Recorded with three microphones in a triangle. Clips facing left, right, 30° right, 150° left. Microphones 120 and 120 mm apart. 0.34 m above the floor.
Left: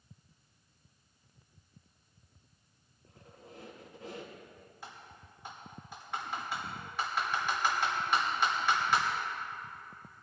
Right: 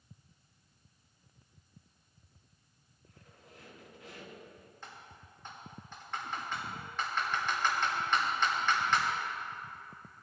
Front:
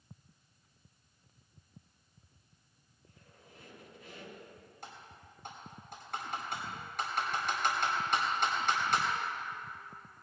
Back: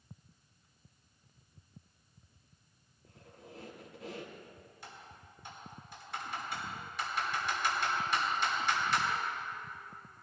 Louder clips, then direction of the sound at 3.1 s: Left 5 dB, back 7 dB; 145° left.